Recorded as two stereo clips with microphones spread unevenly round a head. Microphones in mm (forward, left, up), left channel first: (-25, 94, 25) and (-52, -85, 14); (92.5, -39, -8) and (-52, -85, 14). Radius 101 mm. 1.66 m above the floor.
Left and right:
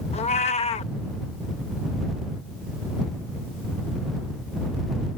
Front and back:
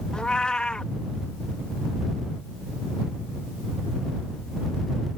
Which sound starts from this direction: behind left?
A cat meowing, at 0.1 s.